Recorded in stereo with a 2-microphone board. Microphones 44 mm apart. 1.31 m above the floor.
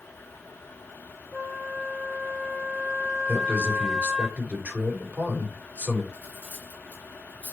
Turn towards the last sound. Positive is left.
turn(degrees=-35)  # may be behind; listen again after turning